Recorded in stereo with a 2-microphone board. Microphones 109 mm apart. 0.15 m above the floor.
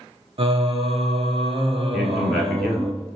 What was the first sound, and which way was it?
Singing, 65° right (ahead or behind).